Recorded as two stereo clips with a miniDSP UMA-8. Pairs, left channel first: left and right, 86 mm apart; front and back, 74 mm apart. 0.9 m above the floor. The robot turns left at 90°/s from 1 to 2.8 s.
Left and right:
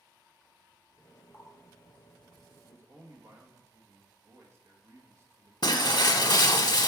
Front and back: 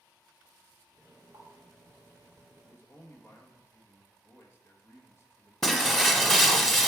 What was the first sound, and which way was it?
A running tap, 155° left.